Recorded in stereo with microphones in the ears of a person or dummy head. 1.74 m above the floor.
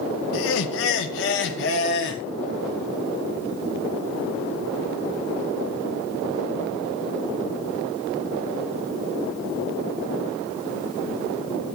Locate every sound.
0.3 s laughter: 65° left (ahead or behind), 0.6 m; by 2.2 s 60° left (ahead or behind), 1.5 m